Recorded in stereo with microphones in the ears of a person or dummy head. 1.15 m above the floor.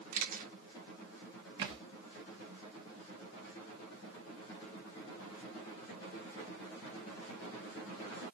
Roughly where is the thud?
Right.